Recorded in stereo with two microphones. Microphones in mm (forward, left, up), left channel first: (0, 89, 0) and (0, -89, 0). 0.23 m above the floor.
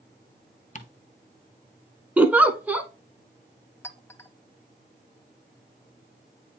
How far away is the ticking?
About 0.8 m.